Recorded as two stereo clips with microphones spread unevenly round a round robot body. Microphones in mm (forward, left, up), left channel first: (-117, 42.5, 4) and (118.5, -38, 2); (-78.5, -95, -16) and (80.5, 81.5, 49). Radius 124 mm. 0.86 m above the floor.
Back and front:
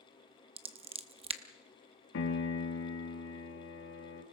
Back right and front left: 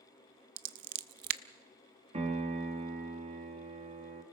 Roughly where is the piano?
Behind left.